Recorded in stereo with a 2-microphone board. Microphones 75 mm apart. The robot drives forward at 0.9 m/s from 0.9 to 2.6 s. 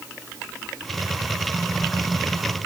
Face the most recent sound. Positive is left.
No sound to turn to.